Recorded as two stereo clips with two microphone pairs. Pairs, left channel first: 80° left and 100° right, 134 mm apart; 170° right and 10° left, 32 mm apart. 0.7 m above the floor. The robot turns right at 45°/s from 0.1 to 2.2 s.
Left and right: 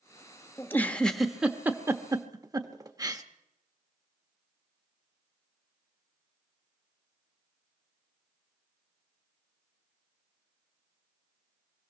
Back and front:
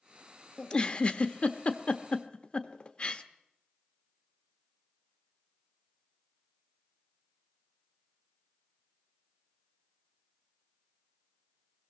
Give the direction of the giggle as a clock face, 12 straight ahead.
7 o'clock.